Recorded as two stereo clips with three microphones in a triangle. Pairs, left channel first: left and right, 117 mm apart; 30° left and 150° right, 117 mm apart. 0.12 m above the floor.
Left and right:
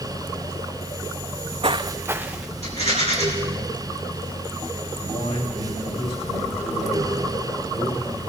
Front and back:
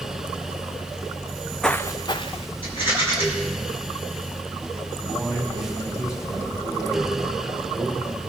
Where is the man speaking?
90° left, 7.5 m.